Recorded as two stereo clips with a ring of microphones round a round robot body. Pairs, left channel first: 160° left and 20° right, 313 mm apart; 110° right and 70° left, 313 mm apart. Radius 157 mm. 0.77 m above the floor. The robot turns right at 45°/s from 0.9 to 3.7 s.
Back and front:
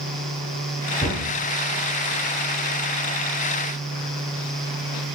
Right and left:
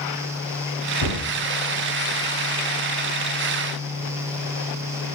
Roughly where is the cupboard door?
Behind right.